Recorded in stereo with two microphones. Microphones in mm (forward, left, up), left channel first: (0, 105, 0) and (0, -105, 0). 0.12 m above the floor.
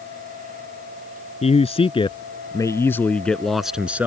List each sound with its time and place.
1.4 s a man speaking: 30° left (ahead or behind); by 4.1 s 10° right (ahead or behind)